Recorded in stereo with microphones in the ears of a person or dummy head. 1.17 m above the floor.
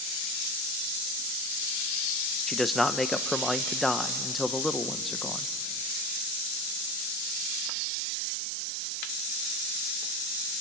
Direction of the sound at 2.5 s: Centre (ahead or behind).